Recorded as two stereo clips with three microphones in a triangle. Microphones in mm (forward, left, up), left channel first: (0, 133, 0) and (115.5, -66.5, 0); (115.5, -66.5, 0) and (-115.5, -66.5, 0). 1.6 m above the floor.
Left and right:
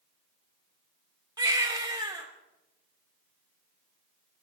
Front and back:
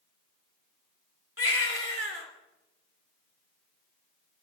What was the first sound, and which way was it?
A baby crying, 10° left.